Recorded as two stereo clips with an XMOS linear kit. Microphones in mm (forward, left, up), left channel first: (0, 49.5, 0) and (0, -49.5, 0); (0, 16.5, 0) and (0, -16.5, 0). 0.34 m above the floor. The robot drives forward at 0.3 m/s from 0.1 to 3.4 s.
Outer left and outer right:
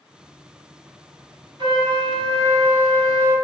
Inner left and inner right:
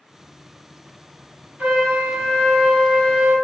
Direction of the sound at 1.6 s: 55° right (ahead or behind).